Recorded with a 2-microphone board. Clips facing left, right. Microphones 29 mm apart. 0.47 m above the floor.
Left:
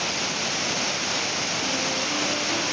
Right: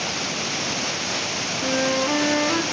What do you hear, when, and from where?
1.6 s a flute: 65° right (ahead or behind), 1.3 m